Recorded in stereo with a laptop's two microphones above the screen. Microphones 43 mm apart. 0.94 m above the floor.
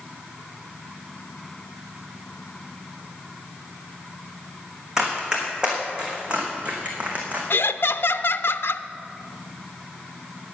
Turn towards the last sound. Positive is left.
turn(degrees=60)  # may be behind; listen again after turning